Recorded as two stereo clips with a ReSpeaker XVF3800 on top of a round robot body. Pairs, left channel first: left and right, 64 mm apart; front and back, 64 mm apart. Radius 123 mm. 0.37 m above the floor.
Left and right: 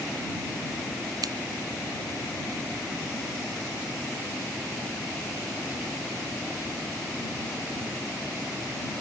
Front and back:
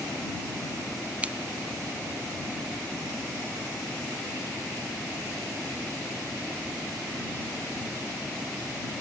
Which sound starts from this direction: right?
Scissors, at 1.2 s.